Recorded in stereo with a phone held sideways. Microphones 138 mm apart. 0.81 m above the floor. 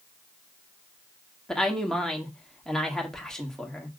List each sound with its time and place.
1.5 s a woman speaking: 5° left (ahead or behind), 1.6 m